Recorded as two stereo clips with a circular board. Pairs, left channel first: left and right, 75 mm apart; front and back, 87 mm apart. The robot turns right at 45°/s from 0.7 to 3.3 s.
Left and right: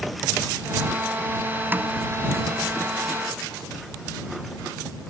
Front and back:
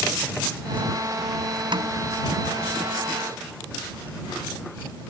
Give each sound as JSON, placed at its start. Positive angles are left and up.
{"t": 1.7, "sound": "a snare drum", "azimuth_deg": -155}